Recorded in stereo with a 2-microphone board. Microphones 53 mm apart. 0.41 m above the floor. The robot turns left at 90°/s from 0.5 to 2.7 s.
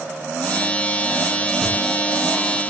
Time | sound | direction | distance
1.6 | a gunshot | 35° right (ahead or behind) | 2.0 m